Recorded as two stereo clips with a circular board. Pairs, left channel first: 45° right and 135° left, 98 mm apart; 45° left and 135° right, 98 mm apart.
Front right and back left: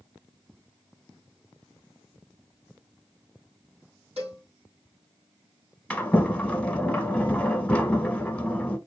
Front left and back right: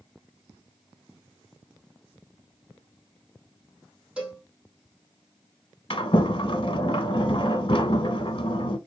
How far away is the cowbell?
About 3 m.